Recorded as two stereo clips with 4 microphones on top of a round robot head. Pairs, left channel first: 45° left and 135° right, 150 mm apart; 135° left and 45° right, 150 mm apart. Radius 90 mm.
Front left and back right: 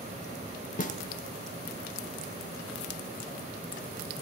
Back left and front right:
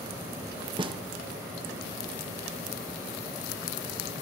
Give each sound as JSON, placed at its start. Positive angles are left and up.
{"t": 0.8, "sound": "a snare drum", "azimuth_deg": 10, "distance_m": 1.0}